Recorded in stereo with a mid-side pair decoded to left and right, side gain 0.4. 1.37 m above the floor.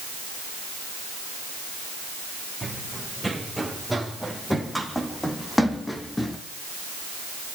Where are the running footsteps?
10° right, 5 m; by 6.4 s 20° left, 3 m.